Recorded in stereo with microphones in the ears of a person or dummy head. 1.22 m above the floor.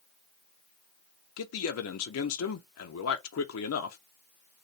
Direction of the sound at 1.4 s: 70° left (ahead or behind).